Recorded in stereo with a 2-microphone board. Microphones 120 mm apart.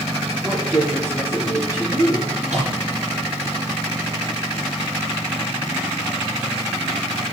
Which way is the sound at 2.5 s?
80° right.